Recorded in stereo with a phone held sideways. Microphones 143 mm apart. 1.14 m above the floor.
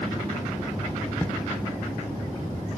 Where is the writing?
10° left (ahead or behind), 0.6 m.